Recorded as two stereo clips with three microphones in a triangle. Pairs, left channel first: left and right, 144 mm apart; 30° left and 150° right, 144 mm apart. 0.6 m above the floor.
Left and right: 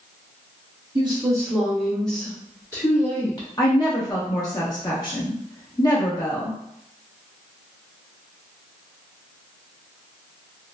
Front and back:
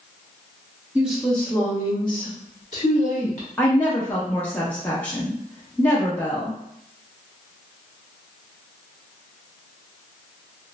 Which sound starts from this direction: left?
A woman speaking, at 3.6 s.